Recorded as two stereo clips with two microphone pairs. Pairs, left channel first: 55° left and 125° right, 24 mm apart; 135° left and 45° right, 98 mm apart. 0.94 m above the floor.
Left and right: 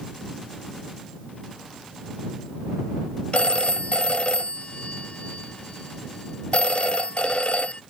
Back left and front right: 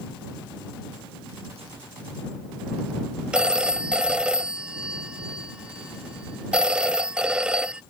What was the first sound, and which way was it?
A phone ringing, 35° left.